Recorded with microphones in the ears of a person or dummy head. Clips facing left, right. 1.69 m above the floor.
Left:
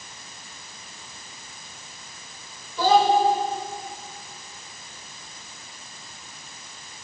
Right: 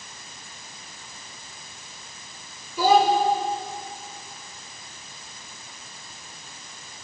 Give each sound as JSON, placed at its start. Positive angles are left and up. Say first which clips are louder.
{"t": 2.8, "sound": "a child speaking", "louder": "even", "side_deg": -5, "distance_m": 4.5}